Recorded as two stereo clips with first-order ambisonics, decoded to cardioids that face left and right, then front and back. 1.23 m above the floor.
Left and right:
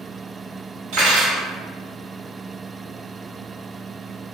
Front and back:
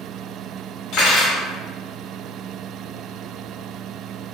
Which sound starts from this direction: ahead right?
Cutlery clinking, at 0.9 s.